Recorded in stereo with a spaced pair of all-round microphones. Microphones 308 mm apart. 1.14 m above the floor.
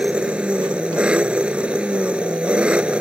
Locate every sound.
0.0 s an engine running: 5° right (ahead or behind)